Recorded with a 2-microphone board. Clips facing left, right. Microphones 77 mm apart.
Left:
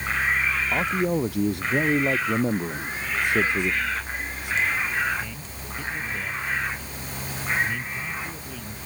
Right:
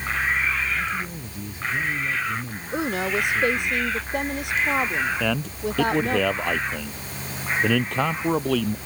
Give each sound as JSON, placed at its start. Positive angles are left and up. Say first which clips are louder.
{"t": 0.7, "sound": "a man speaking", "louder": "left 5 dB", "side_deg": 70}
{"t": 2.7, "sound": "a woman speaking", "louder": "right 5 dB", "side_deg": -70}
{"t": 5.2, "sound": "a man speaking", "louder": "right 12 dB", "side_deg": -80}